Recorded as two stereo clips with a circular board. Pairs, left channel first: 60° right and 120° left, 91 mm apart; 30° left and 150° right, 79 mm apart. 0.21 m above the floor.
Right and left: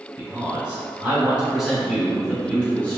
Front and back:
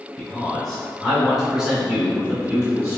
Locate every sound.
0.2 s a man speaking: 90° left, 1.4 m; by 3.0 s 120° right, 1.4 m